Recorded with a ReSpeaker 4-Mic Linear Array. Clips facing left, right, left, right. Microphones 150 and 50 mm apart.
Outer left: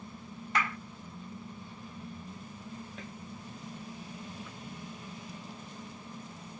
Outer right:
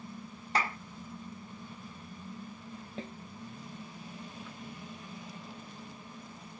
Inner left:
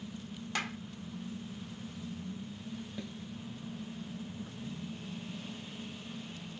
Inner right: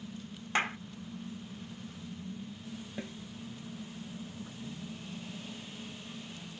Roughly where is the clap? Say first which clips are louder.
Outer right 1 dB, inner right 6 dB; right.